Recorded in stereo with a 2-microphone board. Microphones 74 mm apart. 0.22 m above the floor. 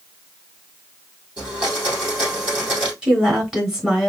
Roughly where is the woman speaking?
Centre.